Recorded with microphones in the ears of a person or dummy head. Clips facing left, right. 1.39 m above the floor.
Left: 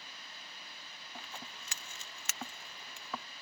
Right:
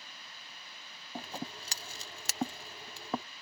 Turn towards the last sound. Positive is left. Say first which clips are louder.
# right 9 dB
turn(degrees=-35)  # may be behind; listen again after turning